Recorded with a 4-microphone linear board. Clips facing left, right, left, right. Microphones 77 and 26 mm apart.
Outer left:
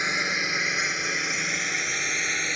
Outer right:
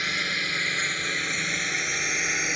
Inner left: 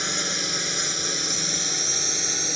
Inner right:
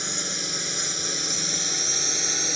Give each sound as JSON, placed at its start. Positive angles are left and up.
{"t": 0.0, "sound": "a drone", "side_deg": 20}